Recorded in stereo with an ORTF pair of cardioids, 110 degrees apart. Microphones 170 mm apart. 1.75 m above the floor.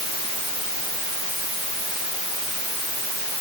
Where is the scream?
No scream in this recording.